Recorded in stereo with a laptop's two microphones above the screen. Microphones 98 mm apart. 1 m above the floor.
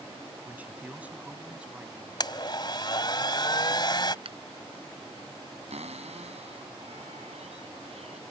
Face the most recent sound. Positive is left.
turn(degrees=-85)